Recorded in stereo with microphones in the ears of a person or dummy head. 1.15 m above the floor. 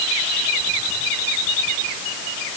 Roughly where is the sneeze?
I don't hear a sneeze.